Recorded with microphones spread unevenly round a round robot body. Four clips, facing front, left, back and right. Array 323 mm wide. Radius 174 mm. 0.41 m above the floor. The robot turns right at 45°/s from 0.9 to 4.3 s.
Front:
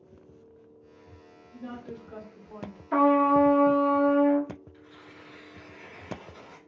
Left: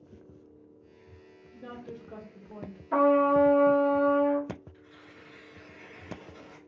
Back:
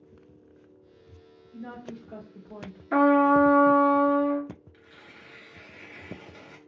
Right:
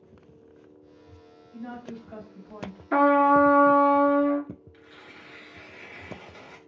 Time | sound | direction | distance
1.5 | a woman speaking | 95° left | 2 m
2.9 | a trumpet | 120° right | 1.1 m
4.7 | tearing paper | 130° right | 1.7 m